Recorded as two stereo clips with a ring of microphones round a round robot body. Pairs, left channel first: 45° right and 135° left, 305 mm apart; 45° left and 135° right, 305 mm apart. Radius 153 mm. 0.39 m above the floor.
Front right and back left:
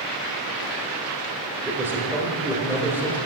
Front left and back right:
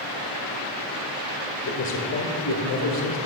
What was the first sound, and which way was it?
A man speaking, 55° left.